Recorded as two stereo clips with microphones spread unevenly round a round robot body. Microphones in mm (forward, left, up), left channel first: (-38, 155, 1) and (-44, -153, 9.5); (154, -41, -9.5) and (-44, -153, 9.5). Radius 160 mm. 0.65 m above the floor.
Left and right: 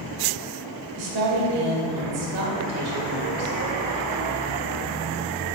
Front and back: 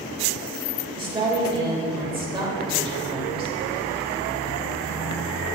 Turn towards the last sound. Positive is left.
turn(degrees=-80)